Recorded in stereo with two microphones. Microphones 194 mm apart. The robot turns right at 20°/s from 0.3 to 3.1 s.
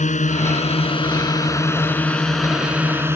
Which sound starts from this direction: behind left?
A drone, at 0.0 s.